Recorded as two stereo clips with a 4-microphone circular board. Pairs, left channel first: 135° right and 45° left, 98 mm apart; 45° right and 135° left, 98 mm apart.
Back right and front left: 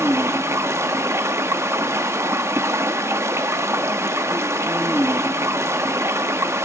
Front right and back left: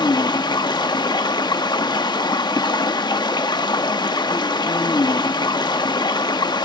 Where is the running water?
15° right, 1.1 m.